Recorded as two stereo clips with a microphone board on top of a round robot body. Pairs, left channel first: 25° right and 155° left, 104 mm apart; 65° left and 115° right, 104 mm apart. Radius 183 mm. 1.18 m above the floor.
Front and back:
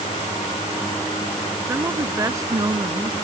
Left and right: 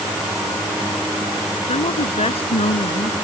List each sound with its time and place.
1.7 s a woman speaking: 90° left; by 3.1 s 100° left